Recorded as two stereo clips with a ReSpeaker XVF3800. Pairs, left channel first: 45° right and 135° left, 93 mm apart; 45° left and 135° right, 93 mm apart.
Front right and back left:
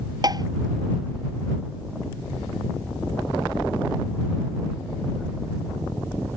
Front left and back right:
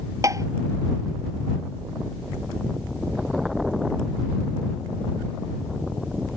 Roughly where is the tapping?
Behind.